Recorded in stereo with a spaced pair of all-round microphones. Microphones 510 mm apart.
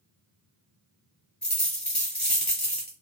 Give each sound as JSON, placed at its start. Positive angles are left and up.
{"t": 1.4, "sound": "a dropped coin", "side_deg": 0, "distance_m": 1.9}